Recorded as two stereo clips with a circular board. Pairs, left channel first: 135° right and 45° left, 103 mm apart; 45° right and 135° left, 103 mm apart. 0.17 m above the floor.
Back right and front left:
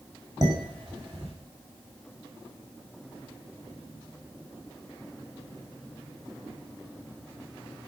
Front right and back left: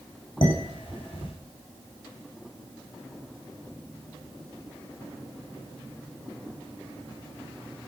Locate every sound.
0.4 s dishes clattering: straight ahead, 7.5 m